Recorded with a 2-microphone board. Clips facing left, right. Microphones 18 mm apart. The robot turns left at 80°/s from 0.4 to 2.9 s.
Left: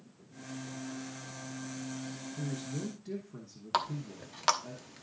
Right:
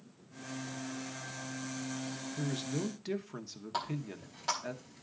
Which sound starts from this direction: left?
A running tap, at 3.7 s.